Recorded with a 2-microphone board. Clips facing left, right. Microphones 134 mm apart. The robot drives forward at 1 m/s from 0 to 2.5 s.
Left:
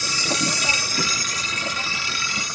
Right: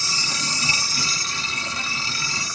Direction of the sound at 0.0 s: 60° left (ahead or behind).